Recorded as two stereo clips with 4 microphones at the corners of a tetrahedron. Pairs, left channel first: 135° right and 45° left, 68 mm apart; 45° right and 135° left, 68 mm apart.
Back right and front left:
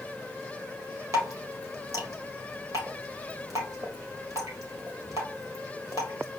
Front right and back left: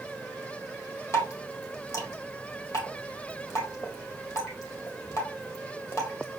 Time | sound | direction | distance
1.1 | dripping | 5° left | 1.5 m